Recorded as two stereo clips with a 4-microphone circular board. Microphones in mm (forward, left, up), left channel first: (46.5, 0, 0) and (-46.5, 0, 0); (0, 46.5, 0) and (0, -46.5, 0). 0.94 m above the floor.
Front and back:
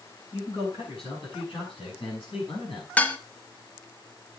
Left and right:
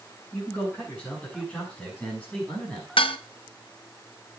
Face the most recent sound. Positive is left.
turn(degrees=75)